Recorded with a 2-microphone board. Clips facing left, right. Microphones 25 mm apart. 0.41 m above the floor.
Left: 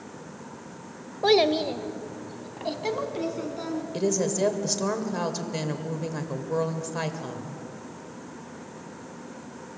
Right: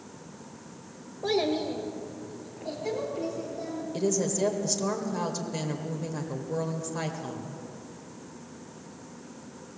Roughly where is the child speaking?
Left.